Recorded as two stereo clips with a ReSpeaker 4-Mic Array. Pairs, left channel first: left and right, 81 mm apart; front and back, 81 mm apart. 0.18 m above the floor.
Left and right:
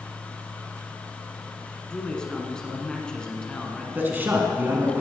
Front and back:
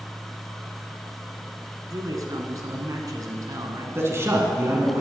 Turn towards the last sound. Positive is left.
turn(degrees=-145)